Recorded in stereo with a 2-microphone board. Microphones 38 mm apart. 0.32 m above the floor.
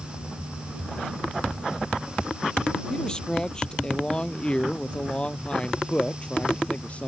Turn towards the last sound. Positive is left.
turn(degrees=35)  # may be behind; listen again after turning